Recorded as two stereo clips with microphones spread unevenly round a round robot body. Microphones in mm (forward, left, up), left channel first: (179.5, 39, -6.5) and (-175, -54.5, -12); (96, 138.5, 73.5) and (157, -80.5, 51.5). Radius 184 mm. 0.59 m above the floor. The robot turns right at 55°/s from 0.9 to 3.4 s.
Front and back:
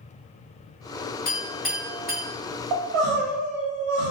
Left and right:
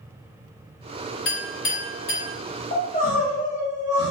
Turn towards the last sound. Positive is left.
turn(degrees=-150)